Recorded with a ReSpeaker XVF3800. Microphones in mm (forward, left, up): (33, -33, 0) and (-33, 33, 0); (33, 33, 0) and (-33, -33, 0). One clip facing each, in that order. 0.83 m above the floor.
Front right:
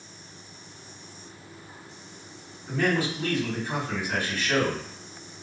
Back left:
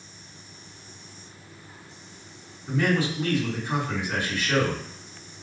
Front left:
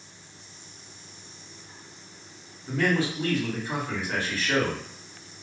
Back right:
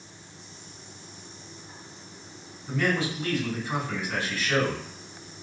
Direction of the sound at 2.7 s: Straight ahead.